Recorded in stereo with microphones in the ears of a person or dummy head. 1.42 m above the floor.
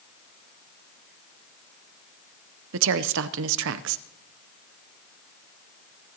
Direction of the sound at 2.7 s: 70° right (ahead or behind).